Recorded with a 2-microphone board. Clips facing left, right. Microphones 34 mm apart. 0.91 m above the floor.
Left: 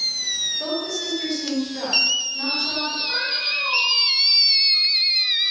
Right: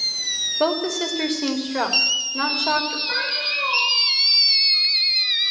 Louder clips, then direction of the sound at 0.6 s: Right 5 dB; 70° right (ahead or behind).